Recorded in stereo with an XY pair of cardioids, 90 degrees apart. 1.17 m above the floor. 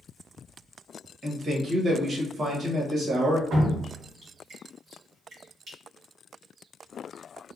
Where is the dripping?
70° right, 1.9 m.